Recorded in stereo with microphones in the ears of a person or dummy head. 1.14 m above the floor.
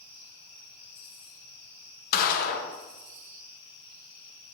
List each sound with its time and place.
2.1 s a gunshot: 50° left (ahead or behind), 0.9 m